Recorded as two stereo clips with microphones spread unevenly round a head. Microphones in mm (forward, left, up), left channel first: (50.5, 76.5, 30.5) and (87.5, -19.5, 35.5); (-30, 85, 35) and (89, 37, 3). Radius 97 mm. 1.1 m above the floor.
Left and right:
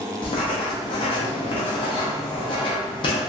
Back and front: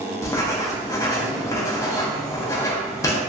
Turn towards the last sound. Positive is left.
turn(degrees=130)